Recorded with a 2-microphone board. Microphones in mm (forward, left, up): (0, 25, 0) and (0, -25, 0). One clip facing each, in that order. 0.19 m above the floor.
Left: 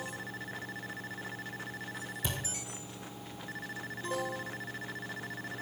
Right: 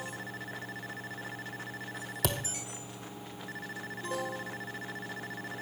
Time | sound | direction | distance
2.2 | a thud | 85° right | 1.4 m